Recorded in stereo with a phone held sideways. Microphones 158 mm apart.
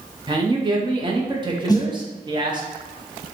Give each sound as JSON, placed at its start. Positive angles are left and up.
{"t": 0.3, "sound": "a man speaking", "side_deg": -30, "distance_m": 0.6}
{"t": 1.7, "sound": "a snare drum", "side_deg": 25, "distance_m": 0.5}